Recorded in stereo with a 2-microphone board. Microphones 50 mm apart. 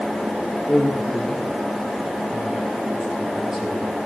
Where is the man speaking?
20° left (ahead or behind), 4 m; by 3.8 s 10° right (ahead or behind), 6.5 m.